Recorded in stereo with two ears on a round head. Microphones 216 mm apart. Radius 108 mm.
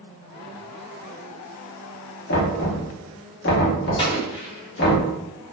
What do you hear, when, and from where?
2.3 s knocking: 45° left (ahead or behind), 0.9 m
4.0 s an explosion: 20° left (ahead or behind), 0.8 m